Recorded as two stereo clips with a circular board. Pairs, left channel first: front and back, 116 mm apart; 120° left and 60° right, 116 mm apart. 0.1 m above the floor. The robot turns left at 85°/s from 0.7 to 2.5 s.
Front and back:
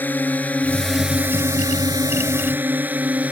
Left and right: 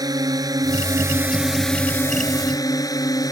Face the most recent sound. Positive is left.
turn(degrees=115)